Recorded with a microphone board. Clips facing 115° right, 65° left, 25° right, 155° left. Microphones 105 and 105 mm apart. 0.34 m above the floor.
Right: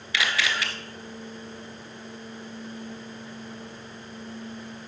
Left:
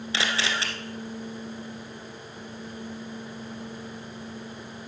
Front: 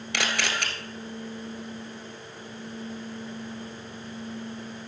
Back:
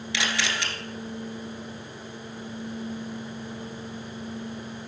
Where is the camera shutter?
10° left, 1.2 m.